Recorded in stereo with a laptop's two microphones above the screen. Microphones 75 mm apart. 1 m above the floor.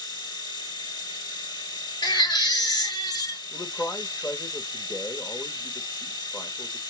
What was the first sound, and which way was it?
A machine running, 85° left.